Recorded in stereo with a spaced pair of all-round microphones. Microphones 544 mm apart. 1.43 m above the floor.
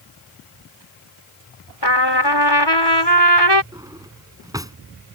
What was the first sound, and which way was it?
A trumpet, 45° left (ahead or behind).